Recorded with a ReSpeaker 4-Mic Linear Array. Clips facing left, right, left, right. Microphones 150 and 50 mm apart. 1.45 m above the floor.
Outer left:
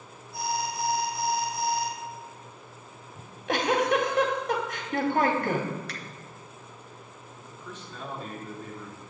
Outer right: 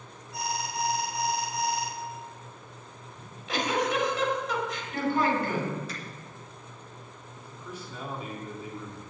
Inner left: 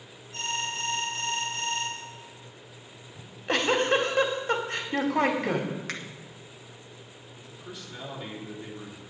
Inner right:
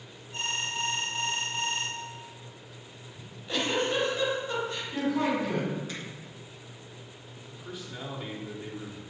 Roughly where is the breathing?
No breathing in this recording.